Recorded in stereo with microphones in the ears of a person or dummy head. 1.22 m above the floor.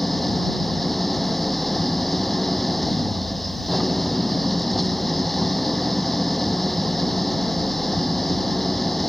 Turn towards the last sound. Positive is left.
turn(degrees=0)  # may be behind; listen again after turning